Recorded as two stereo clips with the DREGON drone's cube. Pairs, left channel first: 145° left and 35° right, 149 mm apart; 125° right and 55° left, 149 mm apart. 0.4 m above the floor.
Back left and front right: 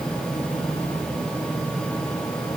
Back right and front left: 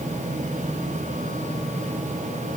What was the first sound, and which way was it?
Only background noise.